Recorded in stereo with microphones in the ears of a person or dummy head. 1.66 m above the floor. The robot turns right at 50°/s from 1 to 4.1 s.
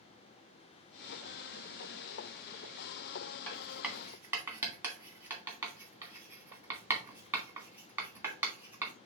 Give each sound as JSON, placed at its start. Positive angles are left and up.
{"t": 3.5, "sound": "writing", "side_deg": 10, "distance_m": 2.0}